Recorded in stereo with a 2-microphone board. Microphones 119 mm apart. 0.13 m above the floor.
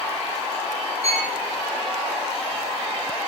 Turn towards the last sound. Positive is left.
turn(degrees=-65)  # may be behind; listen again after turning